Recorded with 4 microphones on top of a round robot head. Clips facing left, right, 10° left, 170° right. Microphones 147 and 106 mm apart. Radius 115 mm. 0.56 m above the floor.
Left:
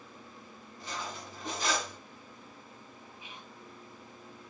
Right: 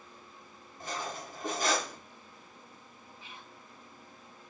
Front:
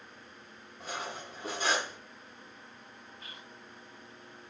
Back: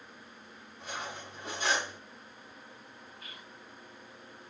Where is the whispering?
30° left, 0.9 m.